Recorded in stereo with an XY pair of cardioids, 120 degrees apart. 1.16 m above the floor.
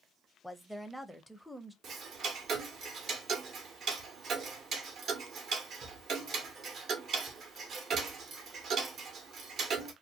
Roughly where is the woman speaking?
Ahead.